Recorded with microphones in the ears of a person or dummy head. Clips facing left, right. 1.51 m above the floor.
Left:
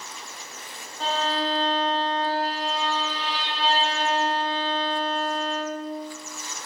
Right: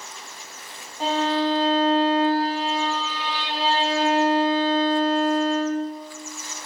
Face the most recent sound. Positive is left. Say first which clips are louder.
# right 5 dB
turn(degrees=-10)  # may be behind; listen again after turning